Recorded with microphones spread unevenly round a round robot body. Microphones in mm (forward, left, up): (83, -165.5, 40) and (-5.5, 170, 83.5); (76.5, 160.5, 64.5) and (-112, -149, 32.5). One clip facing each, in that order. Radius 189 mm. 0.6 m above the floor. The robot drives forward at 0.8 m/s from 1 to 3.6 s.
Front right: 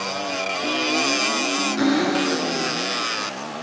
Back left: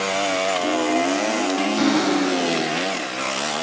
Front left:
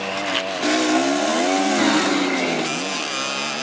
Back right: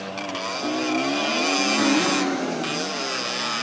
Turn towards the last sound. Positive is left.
turn(degrees=45)